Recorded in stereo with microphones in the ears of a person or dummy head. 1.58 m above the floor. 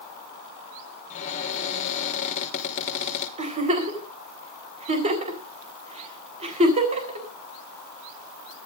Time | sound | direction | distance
1.1 | a cupboard door | 35° left (ahead or behind) | 3.5 m
3.4 | a giggle | 30° right (ahead or behind) | 3.5 m